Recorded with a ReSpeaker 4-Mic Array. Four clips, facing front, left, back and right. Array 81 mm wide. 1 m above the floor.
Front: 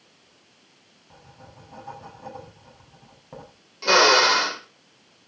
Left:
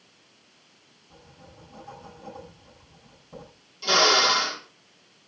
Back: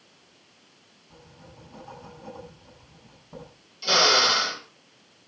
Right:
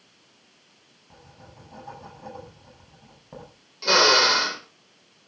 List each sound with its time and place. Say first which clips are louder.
1.1 s writing: right 1 dB, front 2 dB; 40° right, 8 m
3.8 s a drill: right 2 dB, front 5 dB; 30° right, 3.5 m